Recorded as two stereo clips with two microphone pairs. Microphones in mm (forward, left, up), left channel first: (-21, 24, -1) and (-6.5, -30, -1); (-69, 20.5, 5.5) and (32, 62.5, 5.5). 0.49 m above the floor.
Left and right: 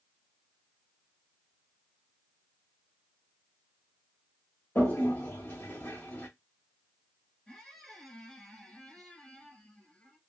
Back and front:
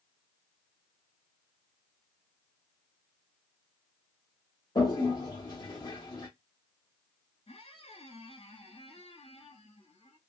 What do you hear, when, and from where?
4.8 s a toilet flushing: 160° left, 1.5 m
7.5 s a squeak: straight behind, 1.5 m